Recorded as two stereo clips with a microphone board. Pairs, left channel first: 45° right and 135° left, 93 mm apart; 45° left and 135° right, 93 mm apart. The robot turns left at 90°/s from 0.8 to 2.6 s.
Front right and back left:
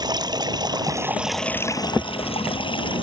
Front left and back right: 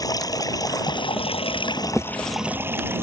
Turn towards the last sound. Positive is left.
turn(degrees=-70)